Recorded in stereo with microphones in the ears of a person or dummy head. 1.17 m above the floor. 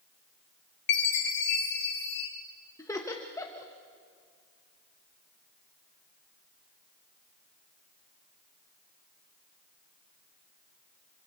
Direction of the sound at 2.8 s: 15° left (ahead or behind).